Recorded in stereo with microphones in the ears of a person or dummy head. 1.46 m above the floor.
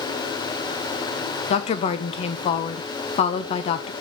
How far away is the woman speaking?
About 0.7 m.